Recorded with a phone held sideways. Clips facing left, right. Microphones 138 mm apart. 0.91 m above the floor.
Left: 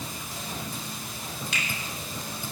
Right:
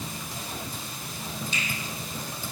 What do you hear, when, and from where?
1.5 s a finger snap: 80° left, 3.5 m